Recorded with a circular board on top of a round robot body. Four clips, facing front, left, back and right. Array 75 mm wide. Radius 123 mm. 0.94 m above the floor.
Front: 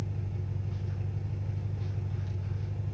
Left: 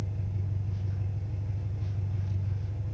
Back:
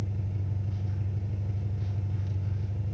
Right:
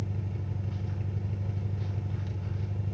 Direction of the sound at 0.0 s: 95° right.